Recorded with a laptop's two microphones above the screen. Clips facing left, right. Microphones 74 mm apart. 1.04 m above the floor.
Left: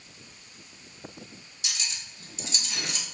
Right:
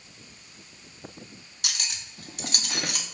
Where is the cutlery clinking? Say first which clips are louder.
Right 1 dB; 65° right (ahead or behind), 0.6 m.